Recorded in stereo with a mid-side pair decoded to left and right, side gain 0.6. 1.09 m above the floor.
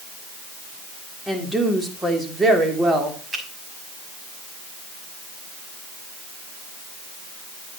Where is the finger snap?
35° right, 6 m.